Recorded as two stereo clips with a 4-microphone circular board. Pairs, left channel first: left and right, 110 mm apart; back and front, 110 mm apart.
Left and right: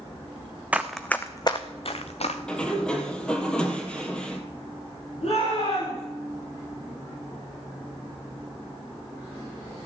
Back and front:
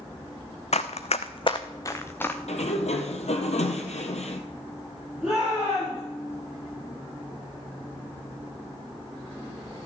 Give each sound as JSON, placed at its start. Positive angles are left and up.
{"t": 0.7, "sound": "running footsteps", "azimuth_deg": -165, "distance_m": 0.8}
{"t": 2.5, "sound": "a sliding door", "azimuth_deg": 170, "distance_m": 1.6}
{"t": 5.2, "sound": "a shout", "azimuth_deg": 85, "distance_m": 6.0}